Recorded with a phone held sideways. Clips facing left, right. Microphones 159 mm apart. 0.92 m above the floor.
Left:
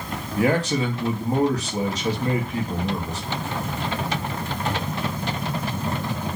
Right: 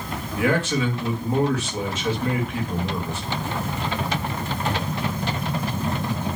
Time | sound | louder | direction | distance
0.4 | a man speaking | left 1 dB | 35° left (ahead or behind) | 1.4 m